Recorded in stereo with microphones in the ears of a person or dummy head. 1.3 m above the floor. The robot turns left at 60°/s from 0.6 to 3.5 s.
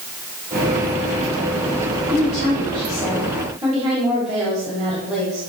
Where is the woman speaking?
65° left, 3 m; by 5.4 s 20° right, 3 m.